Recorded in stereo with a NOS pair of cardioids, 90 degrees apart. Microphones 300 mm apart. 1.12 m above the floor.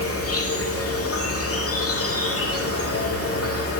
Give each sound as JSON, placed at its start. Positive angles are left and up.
{"t": 0.0, "sound": "an insect", "azimuth_deg": 50, "distance_m": 1.9}